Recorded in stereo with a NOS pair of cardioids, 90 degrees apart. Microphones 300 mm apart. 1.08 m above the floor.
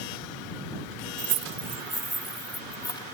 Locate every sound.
1.2 s keys jangling: 55° right; by 3.0 s 15° left